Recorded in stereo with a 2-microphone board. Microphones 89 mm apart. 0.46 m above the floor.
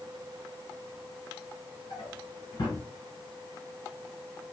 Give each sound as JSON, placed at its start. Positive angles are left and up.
{"t": 1.9, "sound": "a drawer", "side_deg": 55, "distance_m": 1.6}